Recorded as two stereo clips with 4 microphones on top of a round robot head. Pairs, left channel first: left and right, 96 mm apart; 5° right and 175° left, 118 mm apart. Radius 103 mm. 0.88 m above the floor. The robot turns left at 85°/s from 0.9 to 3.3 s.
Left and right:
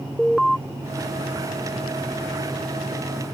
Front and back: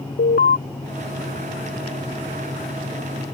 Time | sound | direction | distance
0.2 | an alarm | straight ahead | ?